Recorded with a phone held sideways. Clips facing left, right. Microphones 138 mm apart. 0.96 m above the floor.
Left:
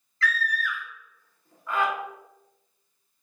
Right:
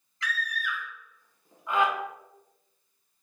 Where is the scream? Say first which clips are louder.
Left 5 dB; 20° right (ahead or behind), 1.0 m.